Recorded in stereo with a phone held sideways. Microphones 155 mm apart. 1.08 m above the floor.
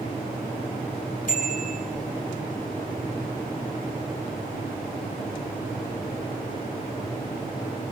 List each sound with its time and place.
1.3 s a bicycle bell: 60° left (ahead or behind), 9.5 m